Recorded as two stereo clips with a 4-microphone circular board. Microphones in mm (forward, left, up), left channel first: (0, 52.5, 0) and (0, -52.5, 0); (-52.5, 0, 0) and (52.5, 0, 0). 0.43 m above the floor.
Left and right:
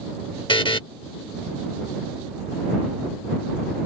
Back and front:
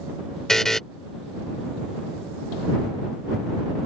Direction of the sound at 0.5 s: 95° left.